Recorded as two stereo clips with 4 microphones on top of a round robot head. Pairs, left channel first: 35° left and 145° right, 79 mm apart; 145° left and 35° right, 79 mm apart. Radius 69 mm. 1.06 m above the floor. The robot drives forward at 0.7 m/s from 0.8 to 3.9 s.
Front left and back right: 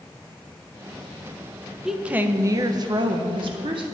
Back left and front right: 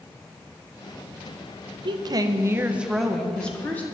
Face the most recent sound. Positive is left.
turn(degrees=-150)